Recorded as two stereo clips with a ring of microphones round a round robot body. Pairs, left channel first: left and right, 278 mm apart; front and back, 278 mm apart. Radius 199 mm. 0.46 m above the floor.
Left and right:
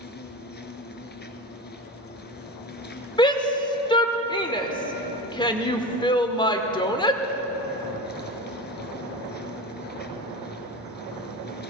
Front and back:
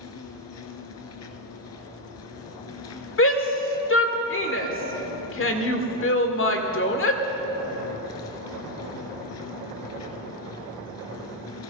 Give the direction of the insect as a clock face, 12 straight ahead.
11 o'clock.